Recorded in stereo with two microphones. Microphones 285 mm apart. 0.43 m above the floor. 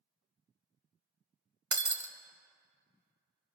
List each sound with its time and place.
1.7 s breaking glass: 75° right (ahead or behind), 0.9 m